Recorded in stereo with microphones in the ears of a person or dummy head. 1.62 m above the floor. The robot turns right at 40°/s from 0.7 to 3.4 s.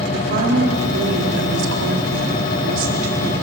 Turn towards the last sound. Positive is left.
turn(degrees=-30)